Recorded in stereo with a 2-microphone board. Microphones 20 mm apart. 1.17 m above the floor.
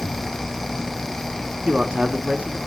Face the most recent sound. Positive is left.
turn(degrees=-90)